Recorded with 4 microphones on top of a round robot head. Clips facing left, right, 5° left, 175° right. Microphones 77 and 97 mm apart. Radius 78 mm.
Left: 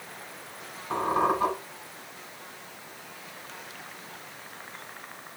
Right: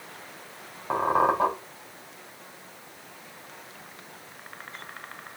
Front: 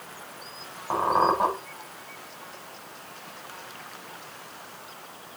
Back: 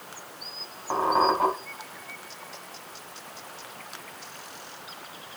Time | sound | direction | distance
0.9 | a squeak | 80° right | 3 m